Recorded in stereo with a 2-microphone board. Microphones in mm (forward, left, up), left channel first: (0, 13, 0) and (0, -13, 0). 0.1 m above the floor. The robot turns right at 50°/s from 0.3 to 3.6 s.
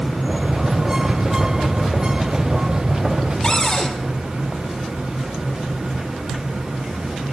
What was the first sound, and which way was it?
A cupboard door, 30° left (ahead or behind).